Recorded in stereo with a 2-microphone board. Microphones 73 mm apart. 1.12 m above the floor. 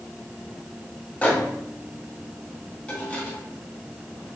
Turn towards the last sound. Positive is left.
turn(degrees=20)  # may be behind; listen again after turning